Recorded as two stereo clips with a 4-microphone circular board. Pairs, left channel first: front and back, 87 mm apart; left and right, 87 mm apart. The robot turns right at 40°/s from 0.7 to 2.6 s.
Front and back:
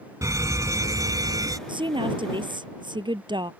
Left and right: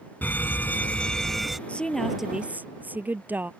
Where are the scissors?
I don't hear scissors.